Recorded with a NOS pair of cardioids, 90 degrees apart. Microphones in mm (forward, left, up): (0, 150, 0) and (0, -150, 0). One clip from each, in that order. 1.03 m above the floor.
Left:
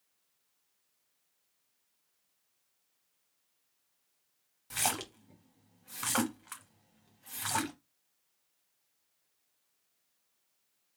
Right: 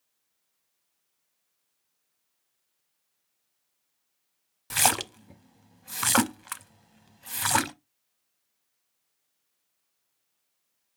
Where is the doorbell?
No doorbell in this recording.